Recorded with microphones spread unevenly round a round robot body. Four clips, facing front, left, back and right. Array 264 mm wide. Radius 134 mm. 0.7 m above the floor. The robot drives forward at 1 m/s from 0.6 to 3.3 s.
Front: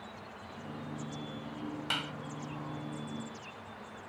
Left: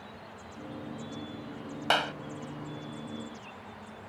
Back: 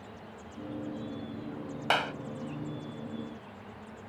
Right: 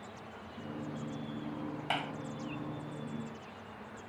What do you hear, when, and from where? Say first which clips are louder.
1.9 s a clap: left 9 dB, back 14 dB; 115° left